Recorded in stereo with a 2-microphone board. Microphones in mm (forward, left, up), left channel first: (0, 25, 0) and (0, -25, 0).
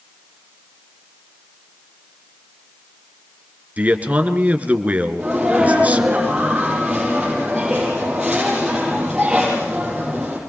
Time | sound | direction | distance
3.8 | a man speaking | 30° right (ahead or behind) | 2.5 m
5.2 | a sneeze | 15° right (ahead or behind) | 6 m